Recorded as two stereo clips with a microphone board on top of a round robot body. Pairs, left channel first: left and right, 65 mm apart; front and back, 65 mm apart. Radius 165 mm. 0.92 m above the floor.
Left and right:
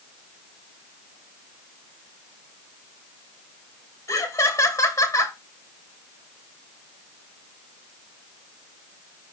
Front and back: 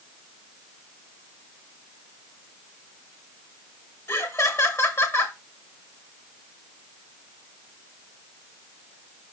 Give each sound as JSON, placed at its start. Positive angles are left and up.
{"t": 4.1, "sound": "laughter", "azimuth_deg": 45, "distance_m": 2.5}